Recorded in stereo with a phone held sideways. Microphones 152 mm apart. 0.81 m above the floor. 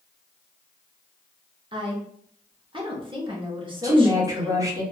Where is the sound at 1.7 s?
35° right (ahead or behind), 0.7 m.